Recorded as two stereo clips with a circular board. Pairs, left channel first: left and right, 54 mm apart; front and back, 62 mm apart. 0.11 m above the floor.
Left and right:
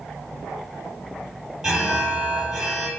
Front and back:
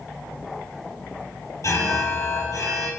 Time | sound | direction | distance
1.6 | an alarm | 5° right | 4 m